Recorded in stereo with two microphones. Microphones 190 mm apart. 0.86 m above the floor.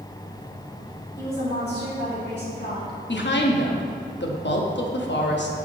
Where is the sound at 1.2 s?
65° left (ahead or behind), 2 m; by 3.0 s 55° left (ahead or behind), 1.5 m.